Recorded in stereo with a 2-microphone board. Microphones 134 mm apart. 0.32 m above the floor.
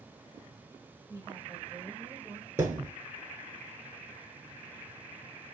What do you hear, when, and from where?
1.1 s a woman speaking: 30° right (ahead or behind), 2 m; by 2.5 s 20° right (ahead or behind), 1.5 m
2.6 s a thud: 20° right (ahead or behind), 1.4 m